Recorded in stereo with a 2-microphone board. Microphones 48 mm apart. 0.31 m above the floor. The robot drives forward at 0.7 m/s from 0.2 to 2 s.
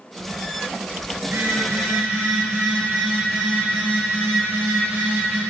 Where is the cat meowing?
No cat meowing in this recording.